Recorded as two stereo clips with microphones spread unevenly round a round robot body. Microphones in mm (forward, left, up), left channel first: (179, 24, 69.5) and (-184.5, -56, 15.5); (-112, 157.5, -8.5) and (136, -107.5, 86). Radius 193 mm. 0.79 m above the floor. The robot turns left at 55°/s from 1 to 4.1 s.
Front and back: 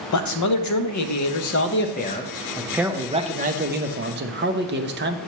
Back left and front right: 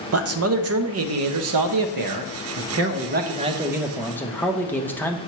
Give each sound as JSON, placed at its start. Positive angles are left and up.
{"t": 0.1, "sound": "a man speaking", "azimuth_deg": 0, "distance_m": 0.6}